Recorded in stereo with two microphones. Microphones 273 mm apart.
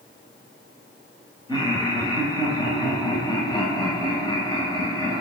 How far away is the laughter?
About 2.5 m.